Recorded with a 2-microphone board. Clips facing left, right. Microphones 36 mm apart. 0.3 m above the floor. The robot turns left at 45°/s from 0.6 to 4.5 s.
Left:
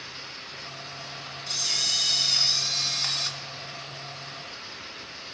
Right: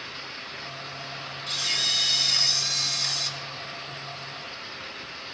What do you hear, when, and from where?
1.5 s a camera shutter: 145° right, 1.9 m; by 3.3 s 135° left, 1.9 m